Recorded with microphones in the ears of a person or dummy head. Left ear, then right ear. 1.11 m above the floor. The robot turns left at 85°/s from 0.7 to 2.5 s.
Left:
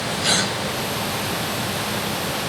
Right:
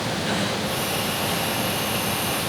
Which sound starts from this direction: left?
A gasp, at 0.2 s.